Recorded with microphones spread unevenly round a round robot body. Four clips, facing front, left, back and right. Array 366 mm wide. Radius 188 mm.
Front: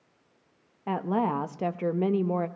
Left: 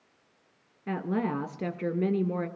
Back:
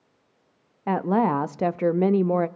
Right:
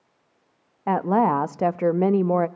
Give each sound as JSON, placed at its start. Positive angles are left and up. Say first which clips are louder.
{"t": 0.9, "sound": "a woman speaking", "louder": "right 10 dB, back 5 dB", "azimuth_deg": -140, "distance_m": 0.6}